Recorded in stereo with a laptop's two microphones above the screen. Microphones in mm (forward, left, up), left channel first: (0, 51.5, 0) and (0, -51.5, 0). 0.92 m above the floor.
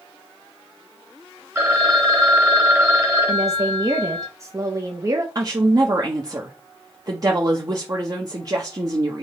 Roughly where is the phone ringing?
Right.